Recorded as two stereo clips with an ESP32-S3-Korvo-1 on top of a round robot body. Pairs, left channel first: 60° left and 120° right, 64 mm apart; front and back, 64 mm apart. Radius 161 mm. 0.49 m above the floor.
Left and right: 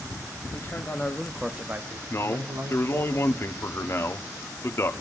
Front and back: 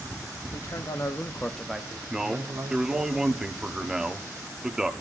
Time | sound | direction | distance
0.5 | a man speaking | 10° left | 1.9 m
2.1 | a man speaking | 100° left | 1.4 m